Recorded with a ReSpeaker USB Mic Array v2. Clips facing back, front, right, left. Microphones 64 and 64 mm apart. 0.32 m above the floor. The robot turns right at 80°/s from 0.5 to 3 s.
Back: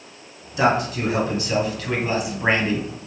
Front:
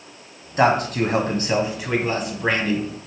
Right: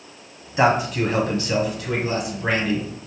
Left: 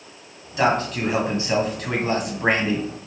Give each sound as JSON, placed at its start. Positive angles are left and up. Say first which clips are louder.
{"t": 0.6, "sound": "a man speaking", "louder": "front 2 dB, right 2 dB", "azimuth_deg": -30, "distance_m": 1.9}